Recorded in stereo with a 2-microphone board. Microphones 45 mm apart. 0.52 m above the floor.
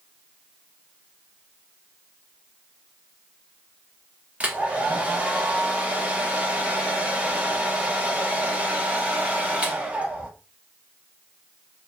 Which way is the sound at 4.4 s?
25° right (ahead or behind).